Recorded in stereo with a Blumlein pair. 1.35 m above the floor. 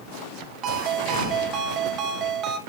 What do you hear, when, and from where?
0.6 s a ringtone: 30° right, 0.7 m